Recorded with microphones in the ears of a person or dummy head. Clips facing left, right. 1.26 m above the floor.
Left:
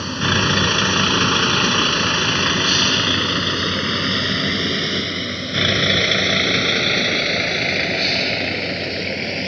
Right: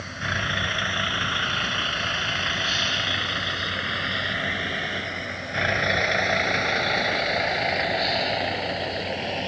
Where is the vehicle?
80° left; by 9.5 s 35° left (ahead or behind).